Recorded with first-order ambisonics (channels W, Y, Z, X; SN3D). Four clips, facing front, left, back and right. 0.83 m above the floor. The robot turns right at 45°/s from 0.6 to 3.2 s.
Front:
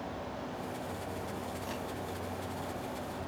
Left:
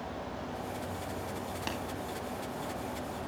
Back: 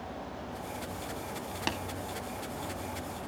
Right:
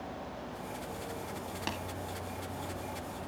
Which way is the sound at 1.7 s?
Straight behind.